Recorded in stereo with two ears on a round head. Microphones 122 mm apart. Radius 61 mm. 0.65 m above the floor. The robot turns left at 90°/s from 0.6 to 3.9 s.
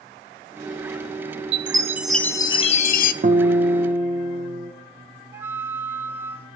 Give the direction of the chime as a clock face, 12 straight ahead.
4 o'clock.